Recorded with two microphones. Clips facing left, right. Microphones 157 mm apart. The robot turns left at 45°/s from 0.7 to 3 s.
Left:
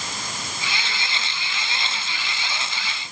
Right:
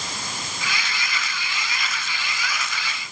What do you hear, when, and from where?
Only background noise.